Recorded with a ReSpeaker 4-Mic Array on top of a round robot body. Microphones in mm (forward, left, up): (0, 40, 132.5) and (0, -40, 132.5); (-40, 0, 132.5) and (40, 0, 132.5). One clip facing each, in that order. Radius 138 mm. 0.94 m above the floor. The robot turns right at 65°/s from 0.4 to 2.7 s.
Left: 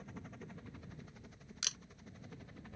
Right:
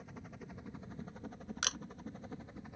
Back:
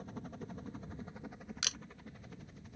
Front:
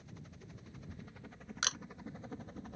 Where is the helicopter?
170° right; by 2.8 s 20° right.